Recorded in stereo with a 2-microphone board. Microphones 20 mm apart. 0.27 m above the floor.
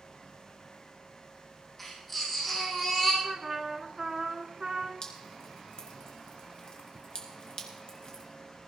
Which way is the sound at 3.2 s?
20° right (ahead or behind).